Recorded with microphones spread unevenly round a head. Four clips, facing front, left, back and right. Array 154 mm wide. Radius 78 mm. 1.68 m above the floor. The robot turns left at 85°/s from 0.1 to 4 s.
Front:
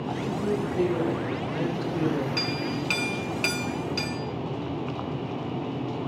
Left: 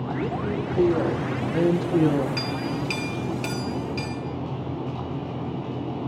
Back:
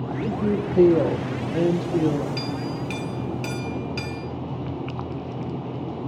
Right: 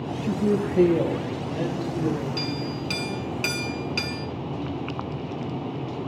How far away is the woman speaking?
About 4 m.